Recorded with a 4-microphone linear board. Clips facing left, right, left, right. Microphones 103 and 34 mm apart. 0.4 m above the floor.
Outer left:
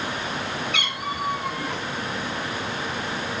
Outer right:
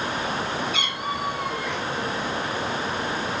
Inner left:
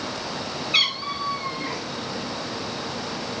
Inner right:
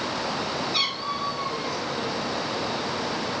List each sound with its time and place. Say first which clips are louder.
0.7 s a cat meowing: outer right 1 dB, inner left 9 dB; 60° left (ahead or behind), 3.5 m; by 1.8 s 30° left (ahead or behind), 3 m